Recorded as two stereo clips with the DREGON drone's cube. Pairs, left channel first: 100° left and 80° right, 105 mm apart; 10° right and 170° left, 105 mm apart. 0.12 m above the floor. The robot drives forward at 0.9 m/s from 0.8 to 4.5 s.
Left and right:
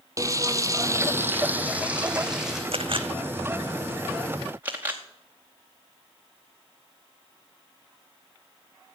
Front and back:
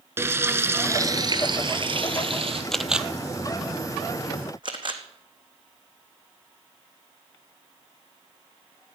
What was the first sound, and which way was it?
Frying, 125° right.